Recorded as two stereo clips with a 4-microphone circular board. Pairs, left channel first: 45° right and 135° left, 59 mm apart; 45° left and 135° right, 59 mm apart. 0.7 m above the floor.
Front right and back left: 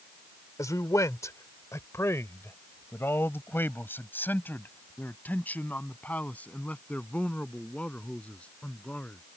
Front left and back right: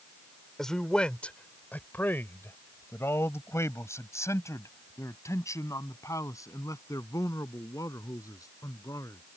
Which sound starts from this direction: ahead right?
A man speaking, at 0.6 s.